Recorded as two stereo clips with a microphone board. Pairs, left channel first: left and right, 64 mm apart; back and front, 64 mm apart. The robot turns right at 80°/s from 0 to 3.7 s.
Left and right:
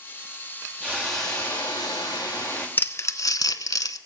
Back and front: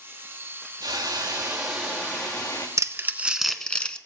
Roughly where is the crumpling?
Ahead left.